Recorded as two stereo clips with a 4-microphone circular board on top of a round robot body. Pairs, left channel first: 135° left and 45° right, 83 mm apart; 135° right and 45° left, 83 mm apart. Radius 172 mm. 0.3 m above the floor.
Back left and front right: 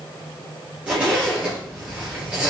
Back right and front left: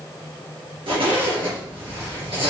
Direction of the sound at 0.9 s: 30° left.